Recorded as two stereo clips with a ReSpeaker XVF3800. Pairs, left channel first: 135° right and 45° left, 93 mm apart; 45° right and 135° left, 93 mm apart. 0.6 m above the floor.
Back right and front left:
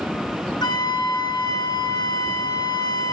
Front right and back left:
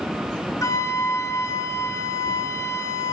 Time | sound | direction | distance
0.6 | a flute | 100° right | 2 m